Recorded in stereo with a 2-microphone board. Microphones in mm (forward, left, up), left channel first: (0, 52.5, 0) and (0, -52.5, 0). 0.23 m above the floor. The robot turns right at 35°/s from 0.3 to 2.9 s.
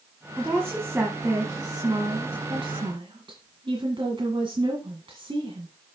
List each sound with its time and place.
0.4 s a woman speaking: 165° right, 1.9 m; by 5.7 s 80° right, 1.9 m